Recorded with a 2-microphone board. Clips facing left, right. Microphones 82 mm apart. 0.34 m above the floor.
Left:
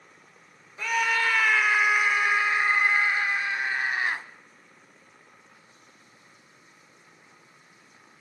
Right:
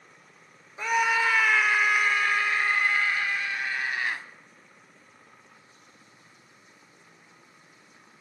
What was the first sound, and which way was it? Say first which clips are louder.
A scream: right 1 dB; 20° right (ahead or behind).